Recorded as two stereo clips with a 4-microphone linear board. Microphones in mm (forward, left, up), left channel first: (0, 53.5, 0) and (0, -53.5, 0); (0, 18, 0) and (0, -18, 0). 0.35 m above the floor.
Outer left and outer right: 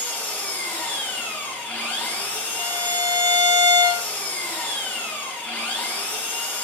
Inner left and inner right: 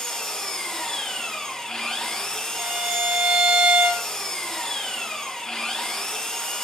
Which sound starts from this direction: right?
A violin, at 2.6 s.